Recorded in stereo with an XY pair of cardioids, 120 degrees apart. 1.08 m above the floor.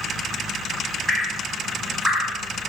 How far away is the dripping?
About 1.1 m.